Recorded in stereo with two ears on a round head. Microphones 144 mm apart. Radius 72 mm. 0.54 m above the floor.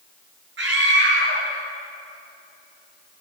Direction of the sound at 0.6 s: 85° right.